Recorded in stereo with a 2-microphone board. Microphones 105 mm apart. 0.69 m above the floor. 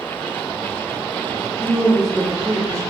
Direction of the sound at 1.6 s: 5° left (ahead or behind).